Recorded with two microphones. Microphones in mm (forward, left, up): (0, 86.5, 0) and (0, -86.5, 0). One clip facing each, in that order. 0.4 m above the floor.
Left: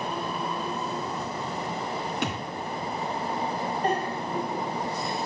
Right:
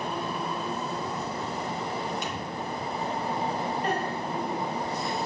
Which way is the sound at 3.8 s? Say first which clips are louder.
Left 2 dB; 35° left (ahead or behind).